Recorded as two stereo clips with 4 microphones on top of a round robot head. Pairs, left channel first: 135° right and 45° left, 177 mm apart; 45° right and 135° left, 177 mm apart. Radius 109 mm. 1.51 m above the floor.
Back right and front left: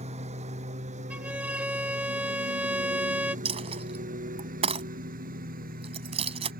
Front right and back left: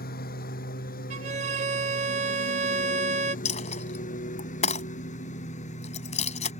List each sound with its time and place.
0.0 s a lawn mower: 10° right; by 6.6 s 5° left
1.1 s a violin: 125° left
3.5 s a dropped coin: 5° right